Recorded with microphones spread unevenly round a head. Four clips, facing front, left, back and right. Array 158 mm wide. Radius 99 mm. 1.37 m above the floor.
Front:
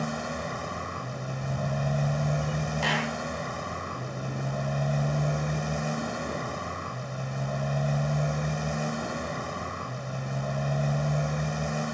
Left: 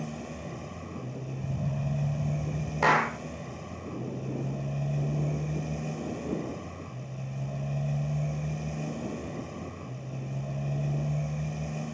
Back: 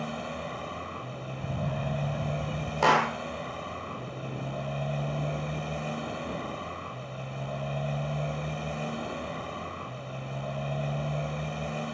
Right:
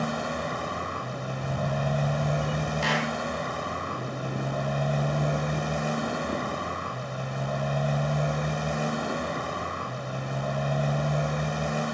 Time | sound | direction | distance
0.0 | a motorcycle | 90° right | ?
1.4 | a camera shutter | 145° right | ?
2.8 | a clap | 175° left | ?